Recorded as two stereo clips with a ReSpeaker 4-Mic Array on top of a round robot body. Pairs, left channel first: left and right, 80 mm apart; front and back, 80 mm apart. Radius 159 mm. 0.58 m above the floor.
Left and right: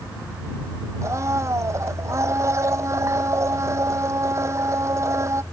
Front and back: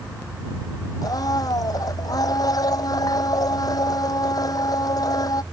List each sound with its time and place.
1.0 s a blender: 40° right